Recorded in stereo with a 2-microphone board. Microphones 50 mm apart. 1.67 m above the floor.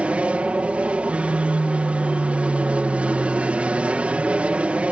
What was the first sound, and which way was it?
An aircraft, 25° right (ahead or behind).